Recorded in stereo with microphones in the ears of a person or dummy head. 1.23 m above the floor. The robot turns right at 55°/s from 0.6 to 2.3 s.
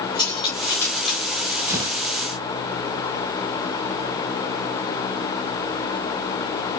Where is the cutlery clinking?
20° left (ahead or behind), 5 m; by 1.2 s 15° right (ahead or behind), 5 m.